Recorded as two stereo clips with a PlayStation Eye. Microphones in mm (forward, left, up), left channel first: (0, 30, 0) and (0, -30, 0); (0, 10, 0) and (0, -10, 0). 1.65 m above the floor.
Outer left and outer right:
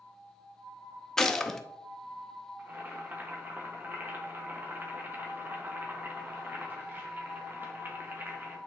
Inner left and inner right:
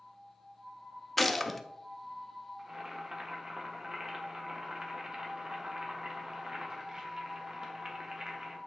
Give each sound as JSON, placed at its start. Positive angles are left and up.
{"t": 1.2, "sound": "a gunshot", "side_deg": 10, "distance_m": 0.6}
{"t": 2.6, "sound": "boiling", "side_deg": -35, "distance_m": 1.5}